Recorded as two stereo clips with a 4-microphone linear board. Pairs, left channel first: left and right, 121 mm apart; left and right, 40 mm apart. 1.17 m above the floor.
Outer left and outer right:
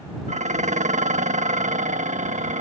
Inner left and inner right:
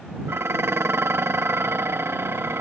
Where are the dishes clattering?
85° right.